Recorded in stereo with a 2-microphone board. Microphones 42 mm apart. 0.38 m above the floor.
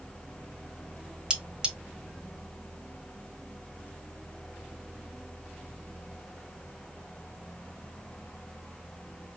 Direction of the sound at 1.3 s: 20° right (ahead or behind).